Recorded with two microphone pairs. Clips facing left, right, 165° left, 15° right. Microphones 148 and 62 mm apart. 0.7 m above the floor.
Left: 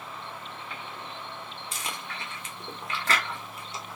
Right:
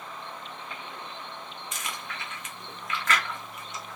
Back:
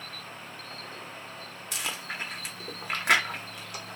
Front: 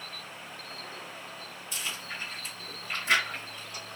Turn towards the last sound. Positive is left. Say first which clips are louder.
# left 1 dB, back 3 dB
turn(degrees=150)